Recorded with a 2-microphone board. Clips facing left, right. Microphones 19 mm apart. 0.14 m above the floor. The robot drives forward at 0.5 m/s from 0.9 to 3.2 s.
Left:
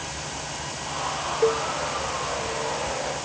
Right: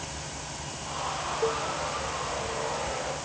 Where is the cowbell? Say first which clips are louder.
Left 7 dB; 40° left (ahead or behind), 0.6 m; by 1.6 s 45° left (ahead or behind), 0.5 m.